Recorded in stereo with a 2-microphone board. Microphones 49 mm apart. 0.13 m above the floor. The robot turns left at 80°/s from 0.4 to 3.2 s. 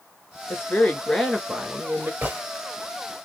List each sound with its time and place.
0.5 s a woman speaking: 65° left, 1.5 m; by 2.1 s 65° right, 1.5 m
2.2 s a gunshot: 40° right (ahead or behind), 1.3 m; by 2.4 s 25° right (ahead or behind), 1.3 m